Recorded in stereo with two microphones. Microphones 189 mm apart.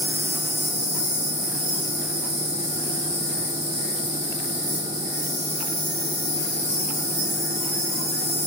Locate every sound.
0.0 s an insect: 65° left (ahead or behind), 1.7 m